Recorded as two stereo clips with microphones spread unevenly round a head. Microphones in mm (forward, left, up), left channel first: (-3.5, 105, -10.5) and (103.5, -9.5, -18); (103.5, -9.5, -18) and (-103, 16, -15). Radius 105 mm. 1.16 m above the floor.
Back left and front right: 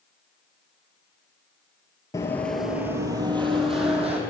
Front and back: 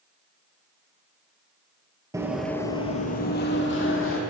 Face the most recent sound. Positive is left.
turn(degrees=0)